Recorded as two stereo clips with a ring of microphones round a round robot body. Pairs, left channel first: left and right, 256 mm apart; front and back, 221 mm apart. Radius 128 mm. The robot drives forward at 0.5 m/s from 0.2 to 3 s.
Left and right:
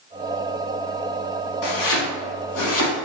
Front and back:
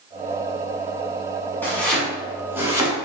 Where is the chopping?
80° left, 1.5 m; by 3.0 s 105° left, 1.6 m.